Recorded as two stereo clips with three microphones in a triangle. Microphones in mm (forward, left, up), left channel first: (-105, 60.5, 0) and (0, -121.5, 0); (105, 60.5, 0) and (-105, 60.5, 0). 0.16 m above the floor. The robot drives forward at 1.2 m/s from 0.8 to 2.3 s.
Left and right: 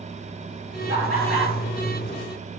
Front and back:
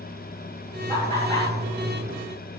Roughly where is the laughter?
Ahead right.